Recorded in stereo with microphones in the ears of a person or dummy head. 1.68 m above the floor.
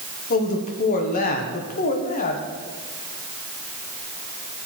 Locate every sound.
0.3 s a man speaking: 50° left (ahead or behind), 1.5 m